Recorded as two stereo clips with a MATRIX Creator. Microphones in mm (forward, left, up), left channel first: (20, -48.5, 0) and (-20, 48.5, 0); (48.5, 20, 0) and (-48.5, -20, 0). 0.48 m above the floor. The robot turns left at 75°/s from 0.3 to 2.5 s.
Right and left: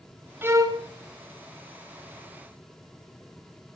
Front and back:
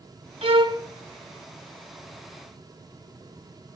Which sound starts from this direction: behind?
A violin, at 0.4 s.